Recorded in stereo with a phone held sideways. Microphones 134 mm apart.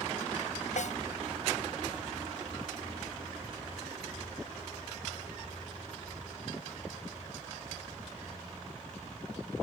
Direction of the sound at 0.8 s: 65° left (ahead or behind).